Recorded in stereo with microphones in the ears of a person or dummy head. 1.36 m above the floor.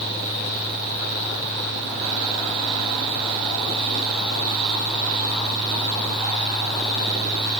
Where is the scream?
I don't hear a scream.